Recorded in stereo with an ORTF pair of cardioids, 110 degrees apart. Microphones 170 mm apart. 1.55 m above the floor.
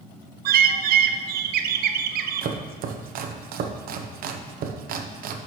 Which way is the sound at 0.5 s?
65° right.